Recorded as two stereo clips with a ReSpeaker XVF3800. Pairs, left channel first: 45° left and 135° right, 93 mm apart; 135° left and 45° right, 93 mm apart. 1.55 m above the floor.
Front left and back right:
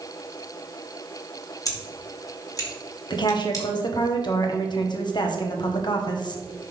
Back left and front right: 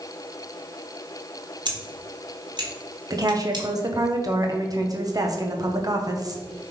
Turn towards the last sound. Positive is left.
turn(degrees=5)